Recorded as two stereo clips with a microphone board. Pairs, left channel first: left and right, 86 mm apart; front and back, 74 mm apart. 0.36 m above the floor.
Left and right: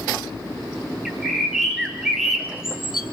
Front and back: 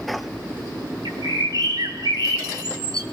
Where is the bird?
175° right, 3 m.